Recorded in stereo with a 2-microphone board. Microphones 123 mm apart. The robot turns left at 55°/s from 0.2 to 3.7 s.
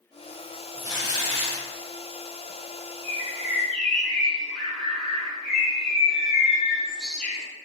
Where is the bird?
145° right, 1.3 m; by 7.5 s straight behind, 1.3 m.